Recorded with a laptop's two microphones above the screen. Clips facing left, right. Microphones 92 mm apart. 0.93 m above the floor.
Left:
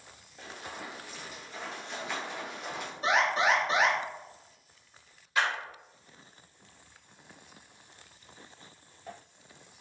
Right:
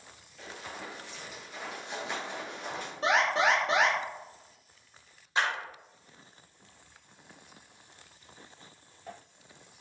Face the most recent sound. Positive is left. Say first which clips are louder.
# left 1 dB
turn(degrees=-30)  # may be behind; listen again after turning